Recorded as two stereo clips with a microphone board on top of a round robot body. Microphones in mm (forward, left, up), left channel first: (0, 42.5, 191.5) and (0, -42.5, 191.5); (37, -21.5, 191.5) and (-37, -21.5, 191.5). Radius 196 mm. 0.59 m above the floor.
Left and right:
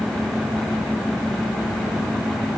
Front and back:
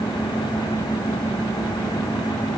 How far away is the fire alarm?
I don't hear a fire alarm.